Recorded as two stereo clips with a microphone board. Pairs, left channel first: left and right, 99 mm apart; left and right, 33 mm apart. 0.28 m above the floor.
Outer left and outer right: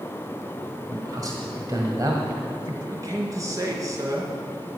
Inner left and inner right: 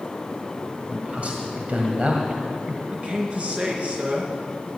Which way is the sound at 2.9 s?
35° right (ahead or behind).